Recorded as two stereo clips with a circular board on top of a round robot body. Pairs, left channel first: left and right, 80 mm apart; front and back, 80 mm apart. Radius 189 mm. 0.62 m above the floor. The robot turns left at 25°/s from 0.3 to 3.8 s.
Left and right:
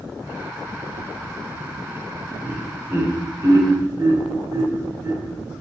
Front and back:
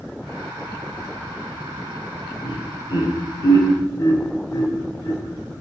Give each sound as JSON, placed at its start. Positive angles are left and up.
{"t": 2.4, "sound": "laughter", "azimuth_deg": -20, "distance_m": 3.0}